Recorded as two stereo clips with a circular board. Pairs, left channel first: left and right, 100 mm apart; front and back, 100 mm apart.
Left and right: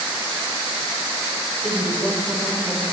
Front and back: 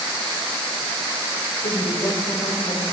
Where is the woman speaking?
10° left, 3.5 m.